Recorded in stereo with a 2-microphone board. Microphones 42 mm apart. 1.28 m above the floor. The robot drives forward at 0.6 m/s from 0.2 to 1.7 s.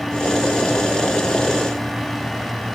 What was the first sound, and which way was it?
Only background noise.